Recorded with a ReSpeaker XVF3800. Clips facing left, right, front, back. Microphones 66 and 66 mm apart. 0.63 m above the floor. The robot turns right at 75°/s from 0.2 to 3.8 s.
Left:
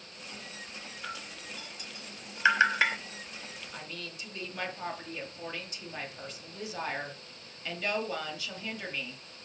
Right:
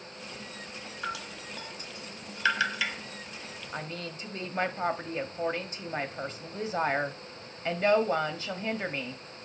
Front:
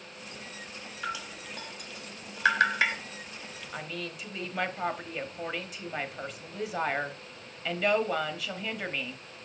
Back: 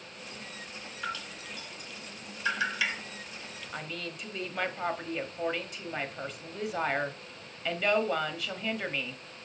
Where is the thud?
No thud in this recording.